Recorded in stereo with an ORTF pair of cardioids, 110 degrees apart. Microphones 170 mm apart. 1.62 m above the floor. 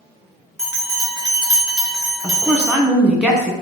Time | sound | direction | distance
0.6 | a bell | 20° right | 1.9 m
2.2 | a woman speaking | 5° right | 1.1 m